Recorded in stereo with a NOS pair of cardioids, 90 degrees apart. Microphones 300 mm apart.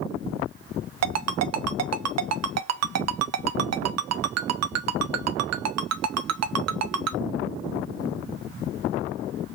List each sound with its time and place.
1.0 s a ringtone: 60° right, 0.9 m